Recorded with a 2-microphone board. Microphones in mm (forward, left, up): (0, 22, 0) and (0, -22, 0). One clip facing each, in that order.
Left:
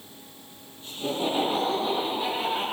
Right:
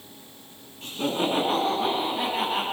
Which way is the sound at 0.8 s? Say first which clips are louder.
Right 2 dB; 80° right.